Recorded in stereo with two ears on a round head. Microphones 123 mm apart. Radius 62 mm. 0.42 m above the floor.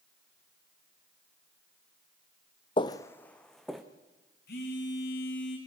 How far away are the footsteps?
About 0.9 m.